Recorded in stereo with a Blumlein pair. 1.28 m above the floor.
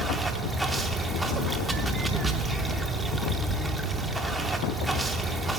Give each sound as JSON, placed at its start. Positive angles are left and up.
{"t": 0.0, "sound": "running water", "azimuth_deg": -10, "distance_m": 0.7}